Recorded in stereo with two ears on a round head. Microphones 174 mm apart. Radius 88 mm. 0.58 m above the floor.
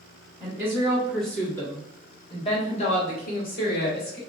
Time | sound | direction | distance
0.4 | a woman speaking | 15° right (ahead or behind) | 1.5 m